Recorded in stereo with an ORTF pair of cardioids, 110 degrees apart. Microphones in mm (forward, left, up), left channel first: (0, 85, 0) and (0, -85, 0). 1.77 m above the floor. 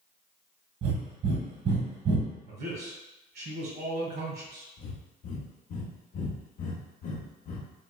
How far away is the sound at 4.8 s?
About 0.6 m.